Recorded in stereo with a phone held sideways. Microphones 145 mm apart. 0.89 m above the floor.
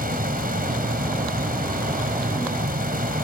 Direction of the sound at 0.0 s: 80° right.